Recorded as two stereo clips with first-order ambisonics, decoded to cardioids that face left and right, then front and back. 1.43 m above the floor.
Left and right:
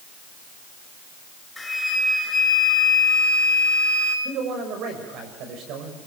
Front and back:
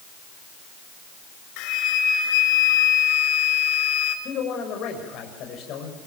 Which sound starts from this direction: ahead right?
A man speaking, at 4.2 s.